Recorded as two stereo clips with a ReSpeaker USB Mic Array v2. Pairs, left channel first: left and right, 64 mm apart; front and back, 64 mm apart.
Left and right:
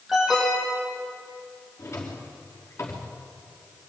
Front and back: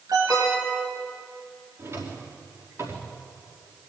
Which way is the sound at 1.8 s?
140° left.